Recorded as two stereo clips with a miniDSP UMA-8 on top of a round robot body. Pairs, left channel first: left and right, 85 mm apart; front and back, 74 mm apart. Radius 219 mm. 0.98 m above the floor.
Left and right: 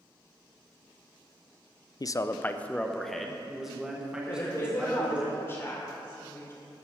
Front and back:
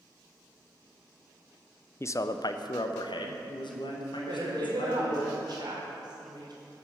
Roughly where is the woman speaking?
Behind left.